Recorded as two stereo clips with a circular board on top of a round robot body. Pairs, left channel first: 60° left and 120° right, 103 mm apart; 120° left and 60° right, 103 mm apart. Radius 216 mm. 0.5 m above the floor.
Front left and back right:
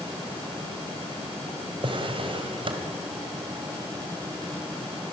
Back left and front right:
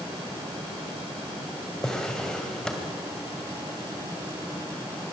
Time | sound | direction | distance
1.8 | a drawer | 155° right | 2 m